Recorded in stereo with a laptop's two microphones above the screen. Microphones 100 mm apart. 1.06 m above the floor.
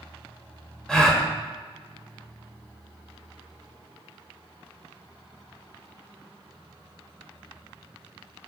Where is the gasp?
5° left (ahead or behind), 1.2 m.